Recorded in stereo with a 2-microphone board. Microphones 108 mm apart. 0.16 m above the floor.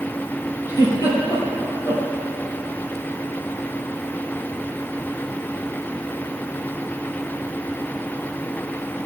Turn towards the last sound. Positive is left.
turn(degrees=35)  # may be behind; listen again after turning